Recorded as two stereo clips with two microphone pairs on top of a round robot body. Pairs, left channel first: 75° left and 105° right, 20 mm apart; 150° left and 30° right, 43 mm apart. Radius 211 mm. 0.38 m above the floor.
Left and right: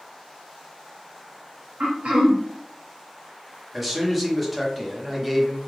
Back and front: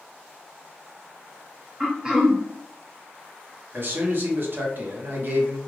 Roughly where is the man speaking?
Ahead.